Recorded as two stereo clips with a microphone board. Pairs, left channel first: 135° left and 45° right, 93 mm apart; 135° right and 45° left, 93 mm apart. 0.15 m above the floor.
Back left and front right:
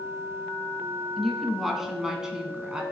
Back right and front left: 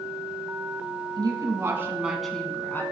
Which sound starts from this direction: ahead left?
A woman speaking, at 1.2 s.